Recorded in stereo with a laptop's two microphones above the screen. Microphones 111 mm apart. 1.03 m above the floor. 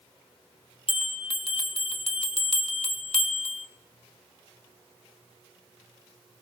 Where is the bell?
55° left (ahead or behind), 0.8 m.